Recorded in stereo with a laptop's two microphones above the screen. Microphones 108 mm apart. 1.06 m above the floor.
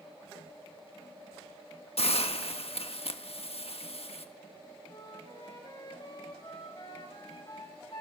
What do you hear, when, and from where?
2.0 s a hiss: 65° left (ahead or behind), 1.4 m
4.9 s a flute: 45° left (ahead or behind), 3 m